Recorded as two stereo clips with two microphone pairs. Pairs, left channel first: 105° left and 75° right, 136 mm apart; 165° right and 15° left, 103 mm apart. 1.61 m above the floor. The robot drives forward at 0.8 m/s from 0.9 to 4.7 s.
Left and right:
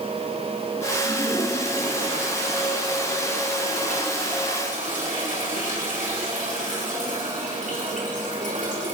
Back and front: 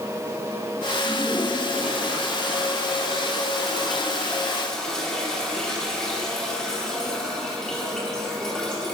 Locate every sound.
1.0 s a toilet flushing: 55° right, 6.5 m; by 8.9 s 80° right, 5.5 m